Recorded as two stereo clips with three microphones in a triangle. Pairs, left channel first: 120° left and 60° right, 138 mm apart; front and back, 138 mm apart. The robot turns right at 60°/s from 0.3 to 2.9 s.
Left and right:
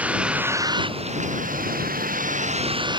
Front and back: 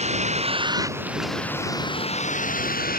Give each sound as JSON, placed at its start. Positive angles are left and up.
{"t": 0.0, "sound": "a vehicle", "azimuth_deg": -140}